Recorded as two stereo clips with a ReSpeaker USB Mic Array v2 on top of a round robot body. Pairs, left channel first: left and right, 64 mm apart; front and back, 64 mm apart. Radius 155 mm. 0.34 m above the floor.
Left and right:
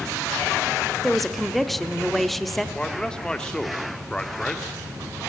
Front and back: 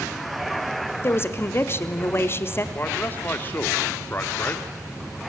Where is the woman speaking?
5° left, 1.1 m.